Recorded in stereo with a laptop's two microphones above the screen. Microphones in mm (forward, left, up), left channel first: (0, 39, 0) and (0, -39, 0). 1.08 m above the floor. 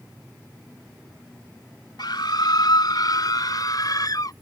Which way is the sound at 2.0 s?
70° left (ahead or behind).